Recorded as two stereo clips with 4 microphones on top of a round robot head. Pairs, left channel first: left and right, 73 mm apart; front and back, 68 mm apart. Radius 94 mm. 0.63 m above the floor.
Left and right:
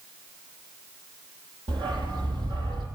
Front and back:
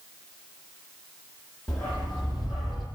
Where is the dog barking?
85° right, 8 m; by 2.9 s 90° right, 8.5 m.